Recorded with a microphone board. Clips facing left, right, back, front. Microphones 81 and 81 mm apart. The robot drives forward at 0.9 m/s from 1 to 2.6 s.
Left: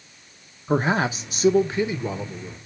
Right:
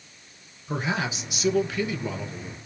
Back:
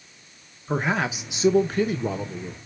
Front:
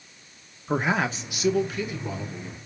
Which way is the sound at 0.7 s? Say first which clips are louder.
Left 7 dB, even; 85° left.